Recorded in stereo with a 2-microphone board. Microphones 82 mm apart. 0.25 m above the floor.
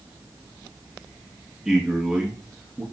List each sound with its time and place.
1.6 s a man speaking: 10° right (ahead or behind), 3.5 m